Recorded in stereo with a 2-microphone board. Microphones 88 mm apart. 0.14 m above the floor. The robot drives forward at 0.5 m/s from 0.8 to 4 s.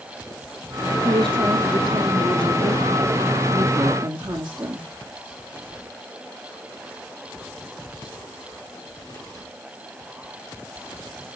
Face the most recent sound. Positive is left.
turn(degrees=-60)  # may be behind; listen again after turning